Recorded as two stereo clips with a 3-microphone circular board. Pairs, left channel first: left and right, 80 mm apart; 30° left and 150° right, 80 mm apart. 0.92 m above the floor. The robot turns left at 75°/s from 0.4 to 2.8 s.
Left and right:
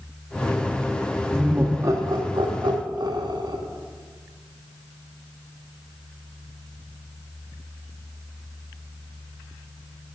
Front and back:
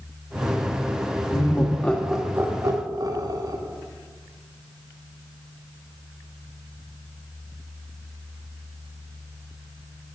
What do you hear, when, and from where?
1.3 s laughter: 5° right, 1.4 m; by 3.6 s 115° right, 1.4 m